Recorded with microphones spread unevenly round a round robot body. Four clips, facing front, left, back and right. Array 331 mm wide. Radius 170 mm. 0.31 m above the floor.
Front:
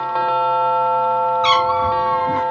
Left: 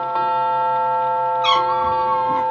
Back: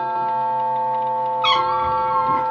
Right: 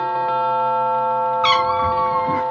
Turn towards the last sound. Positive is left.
turn(degrees=-65)